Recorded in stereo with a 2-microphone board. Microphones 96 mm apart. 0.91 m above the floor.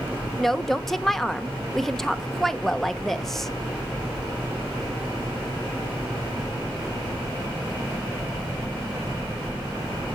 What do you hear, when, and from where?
0.4 s a woman speaking: 5° left (ahead or behind), 0.8 m